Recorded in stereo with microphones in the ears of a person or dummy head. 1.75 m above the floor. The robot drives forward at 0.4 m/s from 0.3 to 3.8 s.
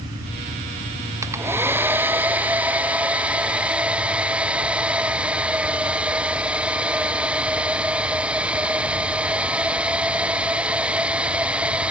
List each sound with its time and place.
1.2 s a hair dryer: 15° right (ahead or behind); by 11.9 s 5° right (ahead or behind)